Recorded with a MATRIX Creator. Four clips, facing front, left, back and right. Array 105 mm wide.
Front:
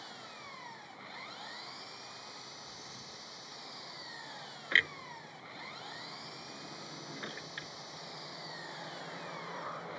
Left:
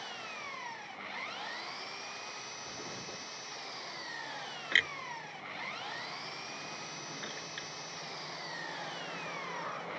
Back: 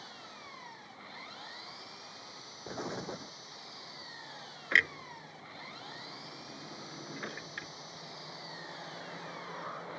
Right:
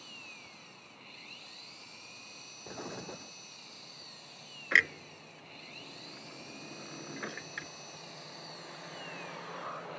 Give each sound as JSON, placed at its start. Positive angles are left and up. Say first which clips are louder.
{"t": 0.0, "sound": "an engine running", "louder": "left 10 dB, front 1 dB", "azimuth_deg": 90}
{"t": 2.7, "sound": "an explosion", "louder": "right 6 dB, back 12 dB", "azimuth_deg": -165}
{"t": 4.7, "sound": "a clunk", "louder": "right 4 dB, back 2 dB", "azimuth_deg": -115}